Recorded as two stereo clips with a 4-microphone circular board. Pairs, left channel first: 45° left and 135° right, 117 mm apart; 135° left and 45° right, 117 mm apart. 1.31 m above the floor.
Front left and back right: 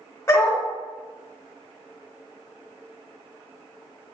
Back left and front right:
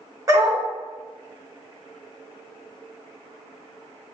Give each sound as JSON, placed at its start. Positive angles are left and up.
{"t": 0.3, "sound": "a dog barking", "azimuth_deg": -5, "distance_m": 0.9}